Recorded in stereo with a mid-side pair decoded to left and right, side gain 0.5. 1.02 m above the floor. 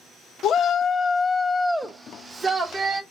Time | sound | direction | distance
0.4 | a shout | 60° left | 0.7 m